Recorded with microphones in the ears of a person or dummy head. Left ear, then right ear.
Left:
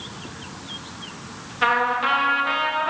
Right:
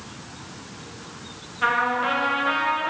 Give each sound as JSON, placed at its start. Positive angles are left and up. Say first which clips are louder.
{"t": 1.6, "sound": "a trumpet", "louder": "left 2 dB", "side_deg": 15, "distance_m": 1.4}